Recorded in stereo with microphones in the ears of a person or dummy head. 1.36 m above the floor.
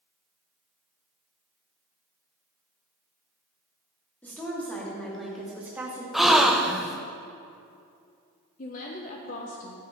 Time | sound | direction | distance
4.2 | a woman speaking | 10° left (ahead or behind) | 2.5 m
6.1 | a gasp | centre (ahead or behind) | 0.7 m
8.6 | a woman speaking | 45° left (ahead or behind) | 1.0 m